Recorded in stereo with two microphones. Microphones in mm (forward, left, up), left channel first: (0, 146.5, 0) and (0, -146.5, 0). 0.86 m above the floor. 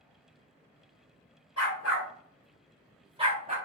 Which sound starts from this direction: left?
A dog barking, at 1.6 s.